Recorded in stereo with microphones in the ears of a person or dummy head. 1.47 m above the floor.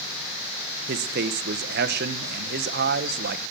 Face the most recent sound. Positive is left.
turn(degrees=-60)  # may be behind; listen again after turning